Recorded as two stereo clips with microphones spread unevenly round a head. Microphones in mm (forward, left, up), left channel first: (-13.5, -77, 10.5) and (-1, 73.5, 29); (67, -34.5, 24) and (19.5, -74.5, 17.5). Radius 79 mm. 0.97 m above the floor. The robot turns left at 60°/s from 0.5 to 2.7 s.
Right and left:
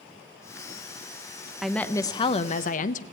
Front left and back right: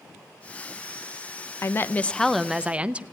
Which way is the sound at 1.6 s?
5° right.